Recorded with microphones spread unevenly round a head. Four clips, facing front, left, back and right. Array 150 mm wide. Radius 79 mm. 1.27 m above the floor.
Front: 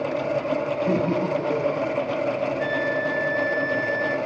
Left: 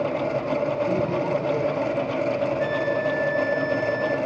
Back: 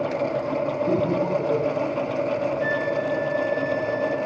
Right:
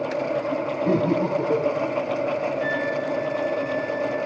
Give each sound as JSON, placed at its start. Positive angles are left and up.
{"t": 0.9, "sound": "laughter", "azimuth_deg": -65, "distance_m": 2.5}
{"t": 2.6, "sound": "a flute", "azimuth_deg": 10, "distance_m": 1.8}